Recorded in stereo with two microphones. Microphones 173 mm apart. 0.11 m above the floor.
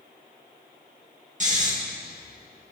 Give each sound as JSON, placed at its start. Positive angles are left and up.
{"t": 1.4, "sound": "snoring", "side_deg": -45, "distance_m": 5.0}